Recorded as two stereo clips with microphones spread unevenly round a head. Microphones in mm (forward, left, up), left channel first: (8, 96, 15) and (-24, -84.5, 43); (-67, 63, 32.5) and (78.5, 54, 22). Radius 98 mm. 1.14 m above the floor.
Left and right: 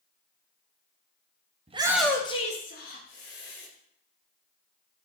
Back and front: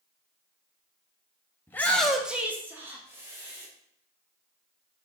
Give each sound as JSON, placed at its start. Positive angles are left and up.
{"t": 1.7, "sound": "a shout", "azimuth_deg": -120, "distance_m": 0.6}